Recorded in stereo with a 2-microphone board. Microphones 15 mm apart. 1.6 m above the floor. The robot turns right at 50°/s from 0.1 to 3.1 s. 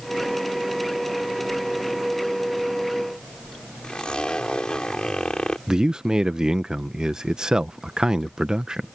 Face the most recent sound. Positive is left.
turn(degrees=-50)  # may be behind; listen again after turning